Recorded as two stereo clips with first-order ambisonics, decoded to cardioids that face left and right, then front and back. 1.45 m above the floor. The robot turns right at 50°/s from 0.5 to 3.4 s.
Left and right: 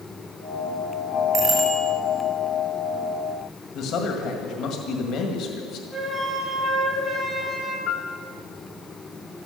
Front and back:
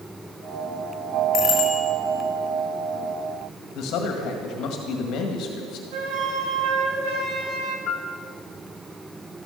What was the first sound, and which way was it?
A bicycle bell, 30° right.